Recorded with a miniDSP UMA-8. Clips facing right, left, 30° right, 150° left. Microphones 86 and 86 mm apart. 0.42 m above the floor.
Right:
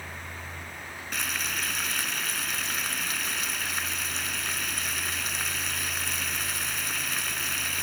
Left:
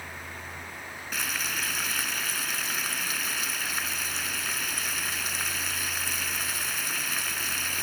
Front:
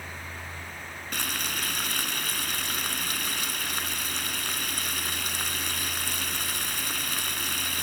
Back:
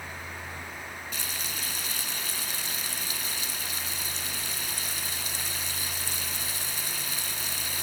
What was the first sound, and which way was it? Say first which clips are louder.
Frying: even, front 4 dB; straight ahead.